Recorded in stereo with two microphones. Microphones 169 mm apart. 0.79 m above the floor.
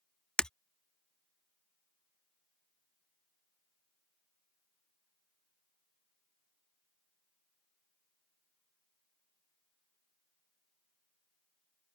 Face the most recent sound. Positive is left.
turn(degrees=5)  # may be behind; listen again after turning